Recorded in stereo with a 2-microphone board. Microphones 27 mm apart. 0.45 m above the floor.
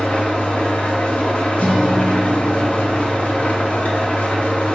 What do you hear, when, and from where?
0.0 s an engine running: 70° left (ahead or behind), 0.8 m
1.6 s a guitar: 70° left (ahead or behind), 0.6 m